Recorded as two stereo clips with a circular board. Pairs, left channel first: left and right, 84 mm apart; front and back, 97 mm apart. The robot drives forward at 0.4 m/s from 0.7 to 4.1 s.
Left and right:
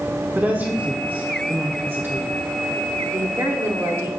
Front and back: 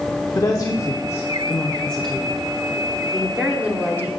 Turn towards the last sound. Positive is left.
turn(degrees=-130)